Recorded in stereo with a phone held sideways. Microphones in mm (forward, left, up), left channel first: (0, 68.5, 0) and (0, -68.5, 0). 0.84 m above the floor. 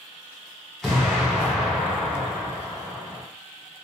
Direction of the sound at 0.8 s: 5° left (ahead or behind).